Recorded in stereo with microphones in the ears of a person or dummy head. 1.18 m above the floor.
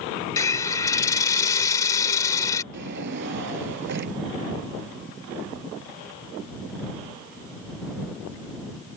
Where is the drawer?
60° right (ahead or behind).